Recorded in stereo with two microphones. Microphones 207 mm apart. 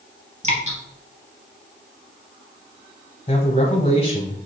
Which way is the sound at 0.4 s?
35° right (ahead or behind).